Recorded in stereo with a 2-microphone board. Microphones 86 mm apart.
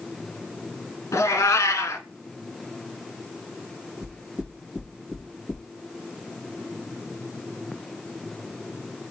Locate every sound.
1.1 s a cat meowing: 40° left (ahead or behind), 1.0 m
4.0 s knocking: 5° left (ahead or behind), 3.5 m